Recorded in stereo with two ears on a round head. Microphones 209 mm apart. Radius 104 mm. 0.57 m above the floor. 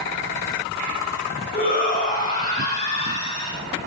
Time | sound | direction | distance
1.5 | a shout | 40° left (ahead or behind) | 4.5 m